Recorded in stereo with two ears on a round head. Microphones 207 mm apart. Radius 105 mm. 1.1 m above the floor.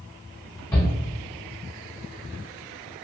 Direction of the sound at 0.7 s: 15° left (ahead or behind).